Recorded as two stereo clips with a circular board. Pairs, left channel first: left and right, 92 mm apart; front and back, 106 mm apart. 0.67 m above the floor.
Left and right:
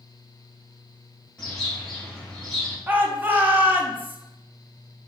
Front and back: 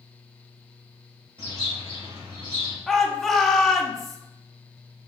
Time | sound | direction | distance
1.4 | a bird | 175° left | 2 m
2.9 | a shout | 85° right | 0.6 m